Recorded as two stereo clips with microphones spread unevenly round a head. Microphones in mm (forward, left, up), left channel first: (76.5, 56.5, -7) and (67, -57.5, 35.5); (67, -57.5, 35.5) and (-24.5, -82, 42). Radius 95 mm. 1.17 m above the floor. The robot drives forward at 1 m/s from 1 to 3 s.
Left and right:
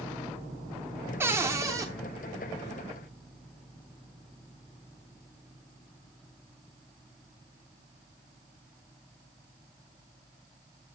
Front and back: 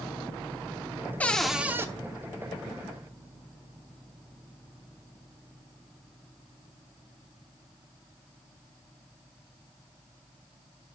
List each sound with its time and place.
1.2 s a cupboard door: 60° right, 0.9 m; by 1.9 s 120° right, 0.9 m